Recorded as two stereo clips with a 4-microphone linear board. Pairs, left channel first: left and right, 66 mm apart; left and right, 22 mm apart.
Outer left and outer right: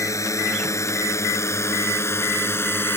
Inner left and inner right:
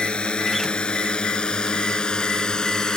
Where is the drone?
50° left (ahead or behind); by 3.0 s 35° left (ahead or behind).